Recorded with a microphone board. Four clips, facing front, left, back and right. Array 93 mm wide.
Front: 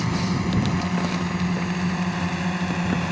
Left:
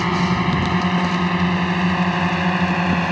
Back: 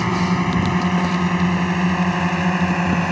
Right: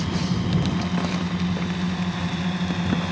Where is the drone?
125° left.